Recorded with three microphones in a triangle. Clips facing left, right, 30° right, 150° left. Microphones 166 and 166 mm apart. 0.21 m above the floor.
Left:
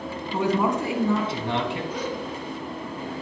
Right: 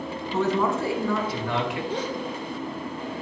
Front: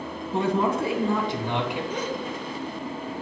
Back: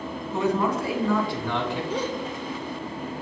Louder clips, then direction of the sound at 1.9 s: Right 1 dB, back 2 dB; 150° right.